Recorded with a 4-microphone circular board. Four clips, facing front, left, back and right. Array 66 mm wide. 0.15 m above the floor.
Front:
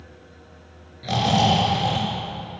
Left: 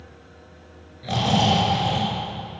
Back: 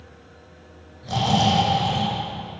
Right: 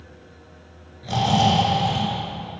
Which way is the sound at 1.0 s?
30° left.